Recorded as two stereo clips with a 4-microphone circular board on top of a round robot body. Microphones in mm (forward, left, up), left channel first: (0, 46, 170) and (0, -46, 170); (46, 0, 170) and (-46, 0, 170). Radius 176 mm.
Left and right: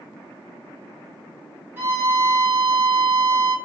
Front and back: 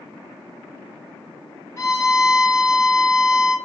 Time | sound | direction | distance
1.8 | a violin | 40° right | 1.3 m